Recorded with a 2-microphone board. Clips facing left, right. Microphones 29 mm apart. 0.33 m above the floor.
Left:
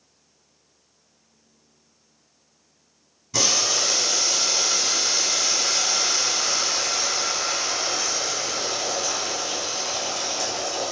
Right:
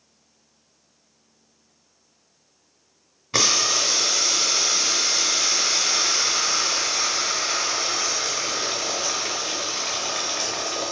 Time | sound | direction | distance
3.3 | boiling | 55° right (ahead or behind) | 0.8 m